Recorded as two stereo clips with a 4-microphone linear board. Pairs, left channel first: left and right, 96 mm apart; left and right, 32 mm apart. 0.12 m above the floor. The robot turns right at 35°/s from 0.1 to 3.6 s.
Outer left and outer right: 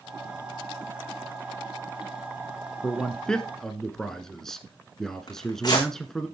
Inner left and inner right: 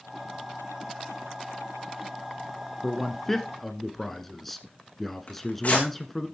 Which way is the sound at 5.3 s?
45° left (ahead or behind).